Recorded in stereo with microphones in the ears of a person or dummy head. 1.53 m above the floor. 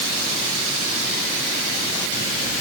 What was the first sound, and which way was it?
Only background noise.